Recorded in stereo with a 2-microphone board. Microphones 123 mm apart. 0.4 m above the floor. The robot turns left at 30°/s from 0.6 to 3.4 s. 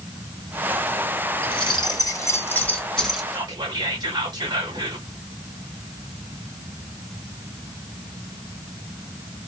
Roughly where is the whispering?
Right.